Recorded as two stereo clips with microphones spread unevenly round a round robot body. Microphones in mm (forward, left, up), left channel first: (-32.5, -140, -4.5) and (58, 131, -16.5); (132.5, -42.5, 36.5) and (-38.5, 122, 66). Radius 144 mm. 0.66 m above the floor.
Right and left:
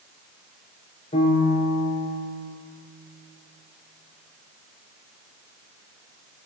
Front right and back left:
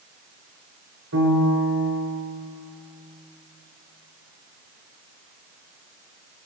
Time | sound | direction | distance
1.1 | a piano | straight behind | 3.5 m